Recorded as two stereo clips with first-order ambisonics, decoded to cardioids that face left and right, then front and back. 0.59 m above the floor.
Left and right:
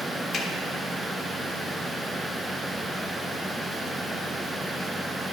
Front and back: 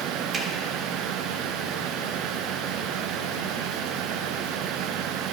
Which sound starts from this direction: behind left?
A finger snap, at 0.3 s.